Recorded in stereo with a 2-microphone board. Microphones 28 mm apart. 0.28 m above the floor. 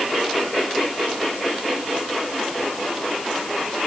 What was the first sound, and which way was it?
Only background noise.